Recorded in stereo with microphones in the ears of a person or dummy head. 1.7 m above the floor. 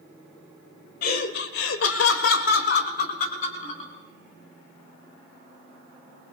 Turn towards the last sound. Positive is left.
turn(degrees=40)  # may be behind; listen again after turning